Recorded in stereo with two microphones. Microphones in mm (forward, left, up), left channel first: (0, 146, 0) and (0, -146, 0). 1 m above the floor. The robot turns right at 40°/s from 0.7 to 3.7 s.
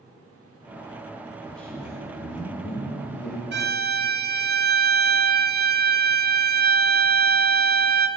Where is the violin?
40° right (ahead or behind), 0.6 m; by 8.1 s 35° right (ahead or behind), 0.6 m.